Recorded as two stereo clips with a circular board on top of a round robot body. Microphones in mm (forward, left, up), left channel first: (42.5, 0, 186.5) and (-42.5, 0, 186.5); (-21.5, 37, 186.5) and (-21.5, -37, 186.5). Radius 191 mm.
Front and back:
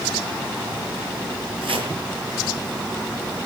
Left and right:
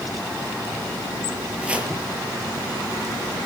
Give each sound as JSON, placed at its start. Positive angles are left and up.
{"t": 1.6, "sound": "chopping", "azimuth_deg": -165, "distance_m": 7.0}